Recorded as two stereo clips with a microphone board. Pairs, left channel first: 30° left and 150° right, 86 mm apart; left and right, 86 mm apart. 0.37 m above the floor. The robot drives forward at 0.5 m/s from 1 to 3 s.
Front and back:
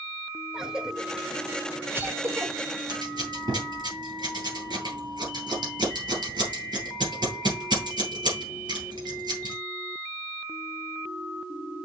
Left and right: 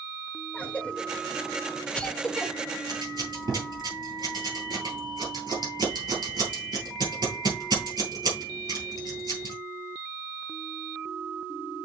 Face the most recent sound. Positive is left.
turn(degrees=-120)